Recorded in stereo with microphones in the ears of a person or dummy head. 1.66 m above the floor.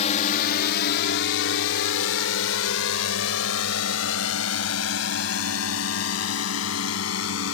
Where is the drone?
40° left (ahead or behind); by 7.5 s 75° left (ahead or behind).